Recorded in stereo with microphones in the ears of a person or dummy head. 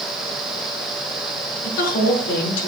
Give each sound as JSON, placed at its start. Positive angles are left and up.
{"t": 1.6, "sound": "a woman speaking", "side_deg": 55, "distance_m": 2.5}